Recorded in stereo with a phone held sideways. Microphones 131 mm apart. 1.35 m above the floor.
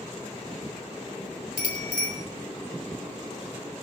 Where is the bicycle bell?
80° left, 3.5 m.